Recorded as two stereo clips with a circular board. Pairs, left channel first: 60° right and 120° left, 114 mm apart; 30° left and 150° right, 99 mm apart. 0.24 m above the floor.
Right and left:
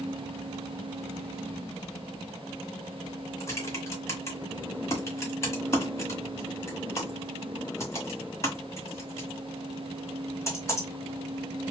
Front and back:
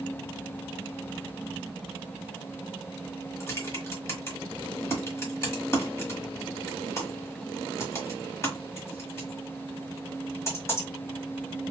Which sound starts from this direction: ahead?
Typing on a keyboard, at 3.4 s.